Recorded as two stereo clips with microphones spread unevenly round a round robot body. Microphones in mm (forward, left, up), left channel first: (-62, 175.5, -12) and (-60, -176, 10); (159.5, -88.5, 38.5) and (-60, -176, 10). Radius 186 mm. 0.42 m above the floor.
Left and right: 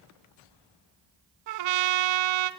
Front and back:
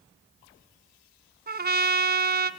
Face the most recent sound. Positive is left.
turn(degrees=-105)